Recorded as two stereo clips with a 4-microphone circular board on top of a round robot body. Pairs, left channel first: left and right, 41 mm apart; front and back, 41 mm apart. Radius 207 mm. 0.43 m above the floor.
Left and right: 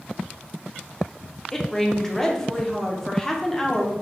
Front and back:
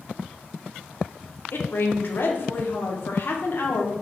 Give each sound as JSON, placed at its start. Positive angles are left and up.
{"t": 1.5, "sound": "a woman speaking", "azimuth_deg": 15, "distance_m": 1.3}